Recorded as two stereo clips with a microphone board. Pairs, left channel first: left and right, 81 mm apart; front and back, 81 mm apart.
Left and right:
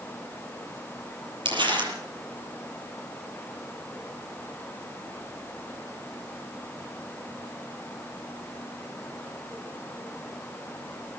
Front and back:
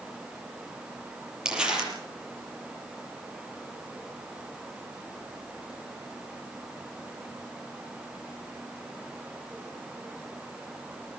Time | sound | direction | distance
1.4 | crumpling | 100° right | 7.5 m